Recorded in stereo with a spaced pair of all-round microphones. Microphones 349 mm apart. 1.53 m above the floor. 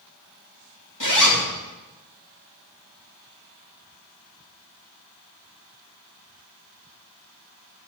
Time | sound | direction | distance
1.0 | a zipper | 55° left (ahead or behind) | 2 m